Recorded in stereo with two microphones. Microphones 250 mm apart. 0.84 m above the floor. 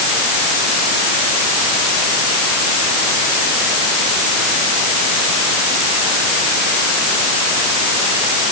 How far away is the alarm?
I don't hear an alarm.